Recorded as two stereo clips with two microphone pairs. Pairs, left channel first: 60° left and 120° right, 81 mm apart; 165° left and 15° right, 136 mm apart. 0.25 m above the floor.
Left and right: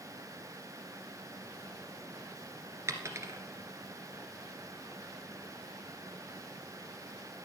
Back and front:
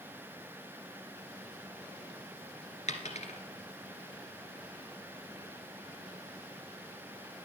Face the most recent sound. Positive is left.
turn(degrees=-170)